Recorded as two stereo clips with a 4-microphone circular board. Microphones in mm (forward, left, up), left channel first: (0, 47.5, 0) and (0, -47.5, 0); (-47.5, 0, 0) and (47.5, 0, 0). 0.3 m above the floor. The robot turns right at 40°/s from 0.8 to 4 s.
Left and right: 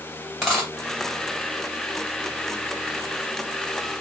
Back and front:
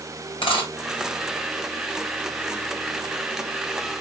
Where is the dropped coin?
Straight behind, 2 m.